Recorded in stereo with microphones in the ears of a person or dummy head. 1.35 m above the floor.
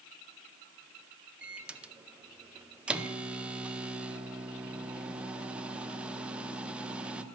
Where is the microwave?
5° right (ahead or behind), 0.6 m.